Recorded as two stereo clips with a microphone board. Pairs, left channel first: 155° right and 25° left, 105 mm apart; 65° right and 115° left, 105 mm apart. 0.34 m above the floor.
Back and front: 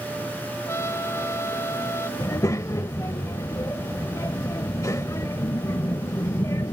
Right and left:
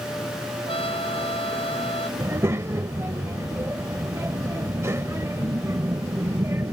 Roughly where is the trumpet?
Right.